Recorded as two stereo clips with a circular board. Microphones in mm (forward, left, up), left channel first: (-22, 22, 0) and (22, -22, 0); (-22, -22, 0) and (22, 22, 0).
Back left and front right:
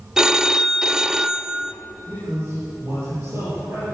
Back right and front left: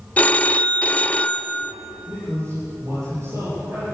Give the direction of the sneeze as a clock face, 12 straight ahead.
I don't hear a sneeze.